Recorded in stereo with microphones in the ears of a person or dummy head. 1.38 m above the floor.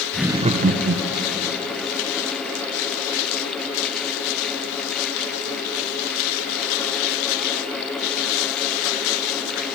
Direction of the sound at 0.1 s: 10° left (ahead or behind).